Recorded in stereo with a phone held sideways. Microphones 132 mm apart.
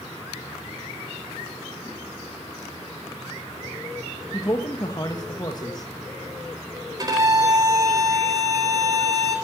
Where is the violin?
30° right (ahead or behind), 4 m.